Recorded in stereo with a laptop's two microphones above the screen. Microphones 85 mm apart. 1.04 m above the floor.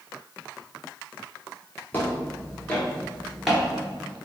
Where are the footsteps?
20° left (ahead or behind), 1.3 m; by 4.2 s 15° right (ahead or behind), 1.0 m.